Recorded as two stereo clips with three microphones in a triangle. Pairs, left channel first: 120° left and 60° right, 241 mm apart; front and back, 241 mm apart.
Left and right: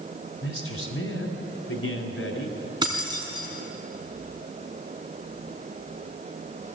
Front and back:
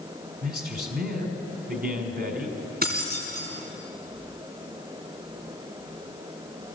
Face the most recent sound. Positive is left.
turn(degrees=-130)